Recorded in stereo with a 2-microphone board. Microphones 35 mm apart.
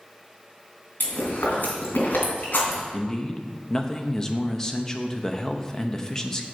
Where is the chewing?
85° left, 2.5 m.